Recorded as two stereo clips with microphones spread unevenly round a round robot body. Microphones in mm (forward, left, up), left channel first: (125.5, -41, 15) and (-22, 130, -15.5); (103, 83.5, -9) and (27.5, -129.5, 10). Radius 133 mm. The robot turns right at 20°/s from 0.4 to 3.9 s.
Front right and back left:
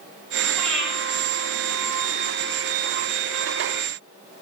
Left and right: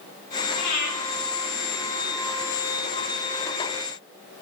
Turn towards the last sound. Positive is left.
turn(degrees=105)